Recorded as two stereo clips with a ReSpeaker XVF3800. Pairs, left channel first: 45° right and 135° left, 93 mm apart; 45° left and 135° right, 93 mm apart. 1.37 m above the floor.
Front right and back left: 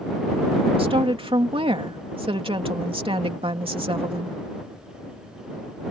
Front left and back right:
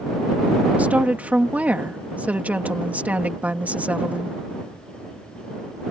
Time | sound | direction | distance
0.8 | a woman speaking | 150° left | ?